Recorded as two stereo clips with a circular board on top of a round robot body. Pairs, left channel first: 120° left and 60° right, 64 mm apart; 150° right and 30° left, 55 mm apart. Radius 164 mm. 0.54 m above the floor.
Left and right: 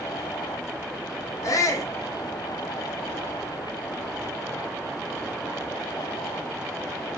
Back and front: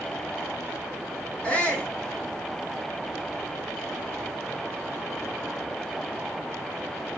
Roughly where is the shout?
Behind left.